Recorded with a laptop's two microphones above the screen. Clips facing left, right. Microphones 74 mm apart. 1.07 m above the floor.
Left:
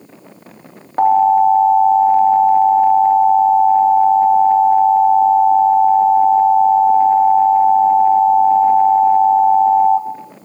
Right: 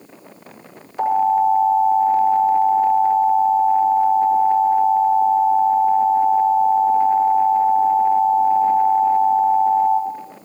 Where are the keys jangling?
No keys jangling in this recording.